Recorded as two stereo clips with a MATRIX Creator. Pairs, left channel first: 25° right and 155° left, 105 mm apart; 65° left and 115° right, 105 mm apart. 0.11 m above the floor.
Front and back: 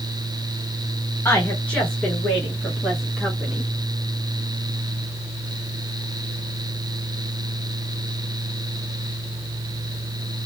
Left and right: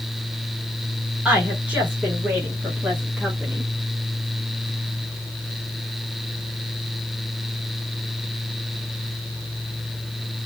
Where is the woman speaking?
60° right, 1.6 m; by 3.7 s 175° left, 1.6 m.